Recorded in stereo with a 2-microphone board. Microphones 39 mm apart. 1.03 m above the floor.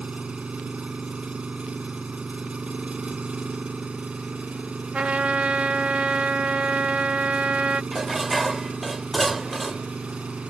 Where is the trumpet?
35° right (ahead or behind).